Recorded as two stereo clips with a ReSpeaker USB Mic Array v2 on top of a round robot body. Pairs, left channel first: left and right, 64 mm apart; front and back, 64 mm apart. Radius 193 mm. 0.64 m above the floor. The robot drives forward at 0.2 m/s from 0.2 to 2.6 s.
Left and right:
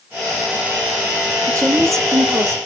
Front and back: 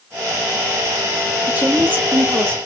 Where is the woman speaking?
115° right, 1.3 m; by 2.6 s 125° right, 1.3 m.